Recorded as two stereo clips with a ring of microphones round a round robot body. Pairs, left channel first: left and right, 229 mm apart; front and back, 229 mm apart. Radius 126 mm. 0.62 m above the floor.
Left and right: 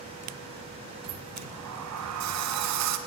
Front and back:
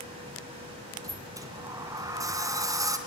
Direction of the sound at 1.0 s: 105° right.